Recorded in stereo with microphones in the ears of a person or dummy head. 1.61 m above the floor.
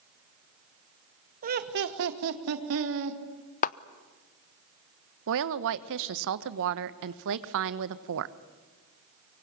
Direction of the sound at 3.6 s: 45° left (ahead or behind).